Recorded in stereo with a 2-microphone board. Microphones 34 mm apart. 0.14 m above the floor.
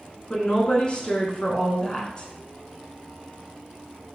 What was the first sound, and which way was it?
A woman speaking, 30° left (ahead or behind).